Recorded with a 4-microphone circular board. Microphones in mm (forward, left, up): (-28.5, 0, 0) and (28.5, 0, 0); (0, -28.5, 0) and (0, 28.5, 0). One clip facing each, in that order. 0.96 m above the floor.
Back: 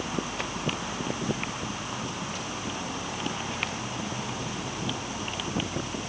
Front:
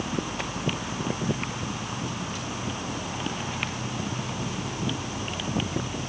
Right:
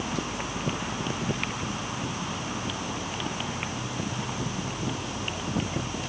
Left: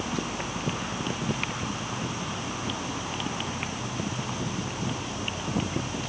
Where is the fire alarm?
I don't hear a fire alarm.